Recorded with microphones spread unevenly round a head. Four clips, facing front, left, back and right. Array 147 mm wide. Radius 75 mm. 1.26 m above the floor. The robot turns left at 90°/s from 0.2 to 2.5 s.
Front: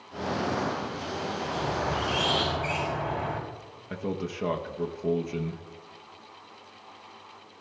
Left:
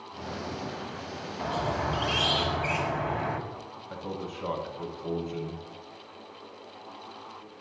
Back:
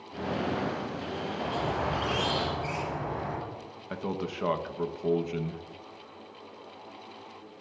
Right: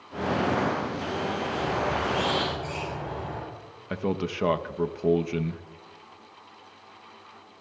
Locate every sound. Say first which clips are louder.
1.4 s a squeak: left 2 dB, even; 155° left, 5 m; by 3.4 s 55° left, 5 m
3.9 s a man speaking: right 8 dB, front 1 dB; 80° right, 1.0 m